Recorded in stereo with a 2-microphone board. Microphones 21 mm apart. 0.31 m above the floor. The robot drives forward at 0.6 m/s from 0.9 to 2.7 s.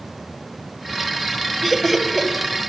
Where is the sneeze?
No sneeze in this recording.